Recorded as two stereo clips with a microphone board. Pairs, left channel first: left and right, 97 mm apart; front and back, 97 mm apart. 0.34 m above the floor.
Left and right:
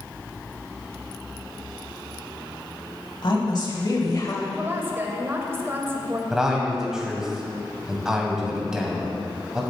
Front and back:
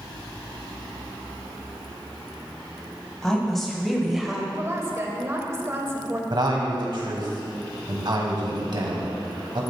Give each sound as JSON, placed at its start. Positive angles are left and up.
{"t": 3.2, "sound": "a woman speaking", "azimuth_deg": 85, "distance_m": 2.0}
{"t": 4.5, "sound": "a woman speaking", "azimuth_deg": -140, "distance_m": 1.1}
{"t": 6.3, "sound": "a man speaking", "azimuth_deg": -175, "distance_m": 1.8}